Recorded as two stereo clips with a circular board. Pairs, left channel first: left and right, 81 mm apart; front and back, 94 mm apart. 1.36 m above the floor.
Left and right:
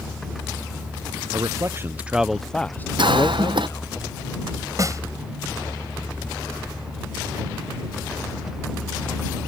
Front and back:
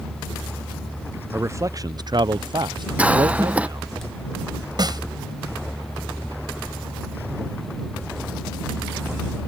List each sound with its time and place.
1.3 s a man speaking: 120° right; by 4.0 s 130° left
3.0 s a cough: 105° right
4.8 s a snare drum: 140° right